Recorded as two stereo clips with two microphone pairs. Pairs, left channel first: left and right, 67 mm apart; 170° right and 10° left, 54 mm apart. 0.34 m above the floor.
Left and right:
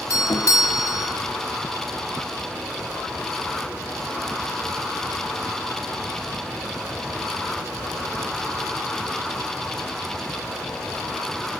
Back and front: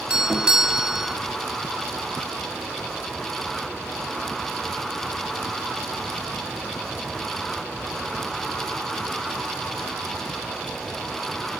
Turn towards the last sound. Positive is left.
turn(degrees=80)